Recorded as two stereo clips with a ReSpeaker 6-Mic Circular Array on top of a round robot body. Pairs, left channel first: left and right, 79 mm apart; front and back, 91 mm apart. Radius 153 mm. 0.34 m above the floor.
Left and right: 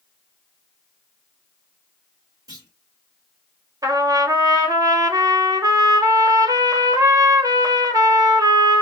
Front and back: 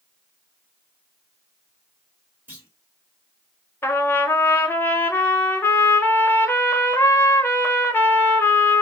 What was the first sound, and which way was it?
A clunk, 115° right.